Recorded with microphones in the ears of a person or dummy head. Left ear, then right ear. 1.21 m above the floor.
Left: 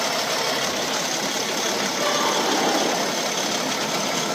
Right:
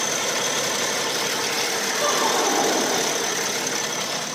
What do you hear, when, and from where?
2.0 s laughter: 15° right (ahead or behind), 4.5 m